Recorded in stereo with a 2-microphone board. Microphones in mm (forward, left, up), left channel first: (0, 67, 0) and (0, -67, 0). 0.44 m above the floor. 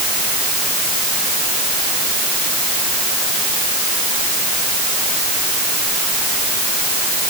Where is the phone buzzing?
I don't hear a phone buzzing.